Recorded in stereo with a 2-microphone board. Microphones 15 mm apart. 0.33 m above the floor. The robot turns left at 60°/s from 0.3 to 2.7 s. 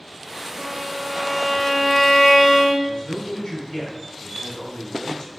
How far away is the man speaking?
About 3.5 m.